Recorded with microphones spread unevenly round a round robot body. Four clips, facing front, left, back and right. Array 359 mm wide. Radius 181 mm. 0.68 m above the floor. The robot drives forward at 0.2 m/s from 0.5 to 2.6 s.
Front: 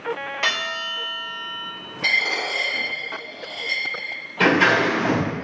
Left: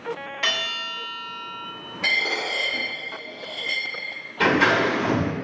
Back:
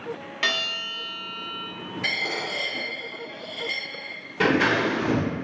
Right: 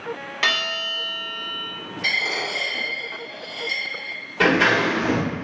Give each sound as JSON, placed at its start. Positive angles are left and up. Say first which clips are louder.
{"t": 0.4, "sound": "a bell", "louder": "right 5 dB, front 1 dB", "azimuth_deg": -165, "distance_m": 1.2}
{"t": 2.0, "sound": "a dropped coin", "louder": "left 1 dB, front 6 dB", "azimuth_deg": 135, "distance_m": 1.8}
{"t": 4.4, "sound": "scissors", "louder": "right 1 dB, front 4 dB", "azimuth_deg": -165, "distance_m": 1.4}